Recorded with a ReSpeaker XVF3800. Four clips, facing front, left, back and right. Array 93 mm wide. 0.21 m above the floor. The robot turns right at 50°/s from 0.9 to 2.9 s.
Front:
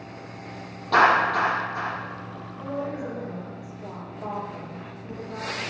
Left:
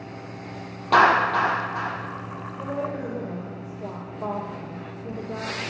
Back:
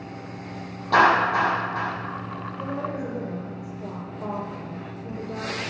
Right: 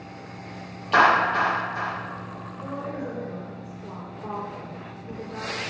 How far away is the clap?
About 6.5 m.